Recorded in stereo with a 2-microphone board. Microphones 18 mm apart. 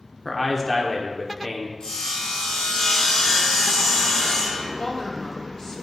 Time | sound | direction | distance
0.2 | a man speaking | 5° left (ahead or behind) | 0.7 m
1.8 | sawing | 55° left (ahead or behind) | 2.5 m
4.8 | a woman speaking | 25° left (ahead or behind) | 0.8 m